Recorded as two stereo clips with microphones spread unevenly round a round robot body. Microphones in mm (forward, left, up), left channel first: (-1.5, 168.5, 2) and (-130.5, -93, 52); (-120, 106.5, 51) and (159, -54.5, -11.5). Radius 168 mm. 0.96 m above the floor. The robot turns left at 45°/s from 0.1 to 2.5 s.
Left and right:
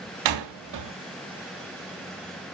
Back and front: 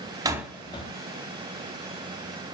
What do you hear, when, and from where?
0.2 s a door slam: 110° right, 1.0 m; by 0.9 s 140° right, 1.0 m